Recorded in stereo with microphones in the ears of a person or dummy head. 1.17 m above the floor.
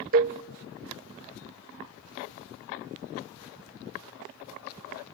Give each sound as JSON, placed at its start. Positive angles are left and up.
{"t": 0.1, "sound": "a cowbell", "side_deg": -40, "distance_m": 0.6}